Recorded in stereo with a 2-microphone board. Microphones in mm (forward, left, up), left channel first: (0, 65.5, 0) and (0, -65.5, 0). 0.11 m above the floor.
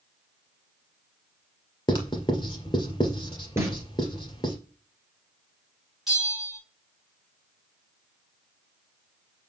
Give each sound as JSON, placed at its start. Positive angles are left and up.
{"t": 1.9, "sound": "writing", "side_deg": 35, "distance_m": 1.9}
{"t": 3.6, "sound": "a snare drum", "side_deg": -20, "distance_m": 2.0}
{"t": 6.1, "sound": "a bell", "side_deg": -5, "distance_m": 5.0}